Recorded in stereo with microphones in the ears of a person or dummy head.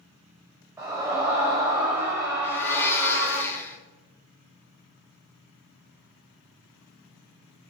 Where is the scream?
10° right (ahead or behind), 5.5 m.